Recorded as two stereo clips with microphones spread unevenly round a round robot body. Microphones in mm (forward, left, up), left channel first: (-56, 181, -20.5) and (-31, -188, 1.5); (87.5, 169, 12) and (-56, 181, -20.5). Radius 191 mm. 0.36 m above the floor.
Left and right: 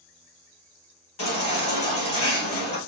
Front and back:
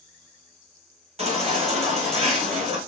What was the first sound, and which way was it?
A baby crying, 145° left.